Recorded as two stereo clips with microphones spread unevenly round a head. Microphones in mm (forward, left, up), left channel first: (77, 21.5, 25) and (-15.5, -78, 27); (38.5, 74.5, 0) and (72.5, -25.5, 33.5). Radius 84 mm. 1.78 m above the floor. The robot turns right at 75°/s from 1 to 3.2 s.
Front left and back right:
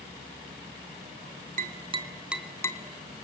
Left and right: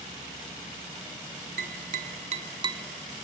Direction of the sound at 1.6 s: 105° right.